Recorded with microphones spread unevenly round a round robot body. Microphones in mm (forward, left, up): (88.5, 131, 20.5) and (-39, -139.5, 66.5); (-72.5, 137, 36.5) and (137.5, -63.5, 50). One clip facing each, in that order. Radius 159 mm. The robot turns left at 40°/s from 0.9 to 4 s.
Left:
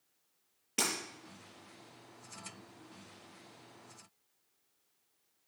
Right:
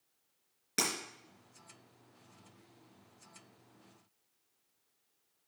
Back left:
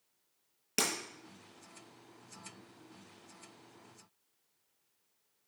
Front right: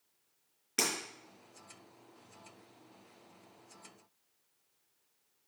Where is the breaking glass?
Straight behind, 3.5 m.